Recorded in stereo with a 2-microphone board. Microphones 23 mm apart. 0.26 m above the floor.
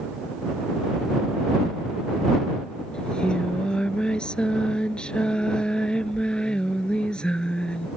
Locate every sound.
2.9 s singing: 50° left (ahead or behind)